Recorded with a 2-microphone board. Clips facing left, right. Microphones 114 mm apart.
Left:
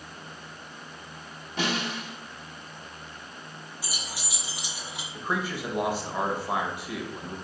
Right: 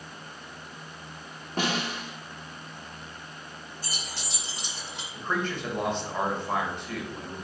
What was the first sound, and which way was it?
A snare drum, 45° right (ahead or behind).